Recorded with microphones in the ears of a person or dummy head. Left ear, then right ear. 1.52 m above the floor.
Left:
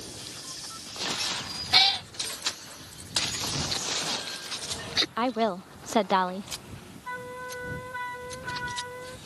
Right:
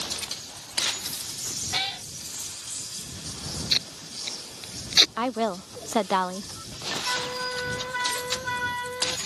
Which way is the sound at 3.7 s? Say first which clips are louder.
Right 2 dB; 25° right (ahead or behind).